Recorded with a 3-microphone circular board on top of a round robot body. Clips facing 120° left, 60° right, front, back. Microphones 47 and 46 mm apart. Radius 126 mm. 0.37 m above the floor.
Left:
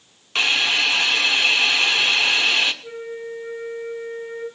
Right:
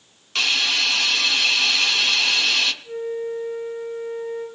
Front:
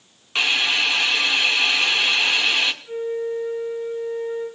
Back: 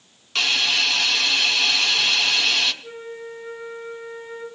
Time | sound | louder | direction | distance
0.3 | a hiss | left 2 dB, front 1 dB | 60° left | 1.6 m
2.8 | a flute | right 4 dB, front 9 dB | 115° left | 8 m